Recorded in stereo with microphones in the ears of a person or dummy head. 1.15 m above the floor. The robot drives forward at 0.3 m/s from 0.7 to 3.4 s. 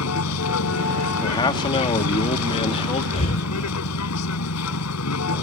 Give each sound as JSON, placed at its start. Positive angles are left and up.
{"t": 0.0, "sound": "a vehicle", "side_deg": 85}
{"t": 1.2, "sound": "a man speaking", "side_deg": 25}
{"t": 3.1, "sound": "breathing", "side_deg": 35}